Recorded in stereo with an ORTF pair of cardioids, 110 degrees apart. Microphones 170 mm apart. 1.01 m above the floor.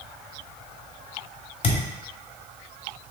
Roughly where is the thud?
Ahead left.